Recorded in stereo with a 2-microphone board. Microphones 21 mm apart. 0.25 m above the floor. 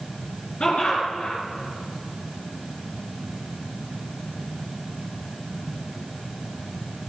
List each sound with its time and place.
0.6 s laughter: 70° left (ahead or behind), 4 m